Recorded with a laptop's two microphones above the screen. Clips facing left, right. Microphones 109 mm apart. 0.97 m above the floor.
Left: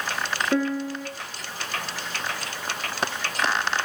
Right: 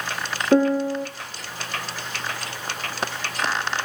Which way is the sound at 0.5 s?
30° right (ahead or behind).